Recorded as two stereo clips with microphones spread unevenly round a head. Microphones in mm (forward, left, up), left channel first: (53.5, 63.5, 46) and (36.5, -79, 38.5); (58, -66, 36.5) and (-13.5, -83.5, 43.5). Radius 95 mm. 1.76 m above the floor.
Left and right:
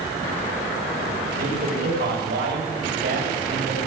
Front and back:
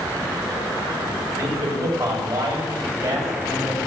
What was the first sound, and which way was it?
A man speaking, 125° right.